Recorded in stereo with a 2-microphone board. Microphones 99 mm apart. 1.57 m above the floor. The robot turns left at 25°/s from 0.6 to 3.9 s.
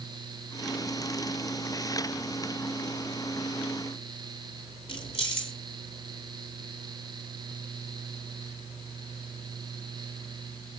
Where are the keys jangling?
60° left (ahead or behind), 2.5 m.